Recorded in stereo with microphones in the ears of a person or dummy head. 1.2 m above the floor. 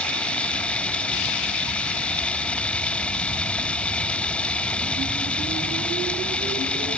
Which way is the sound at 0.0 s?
10° left (ahead or behind).